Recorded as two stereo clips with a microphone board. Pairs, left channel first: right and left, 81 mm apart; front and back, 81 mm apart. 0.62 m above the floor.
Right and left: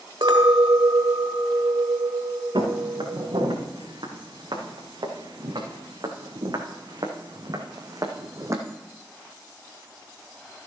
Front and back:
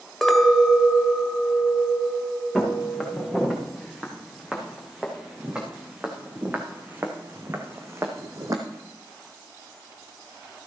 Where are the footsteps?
90° left, 4.5 m; by 8.6 s 135° left, 1.8 m.